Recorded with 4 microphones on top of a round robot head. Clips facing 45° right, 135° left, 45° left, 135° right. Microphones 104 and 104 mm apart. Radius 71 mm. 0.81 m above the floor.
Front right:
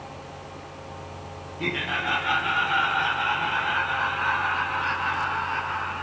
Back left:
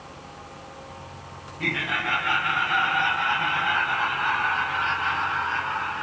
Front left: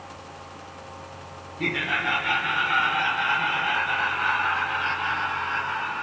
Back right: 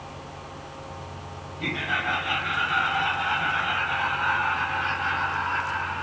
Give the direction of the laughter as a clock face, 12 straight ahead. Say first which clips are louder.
Even, front left 2 dB; 11 o'clock.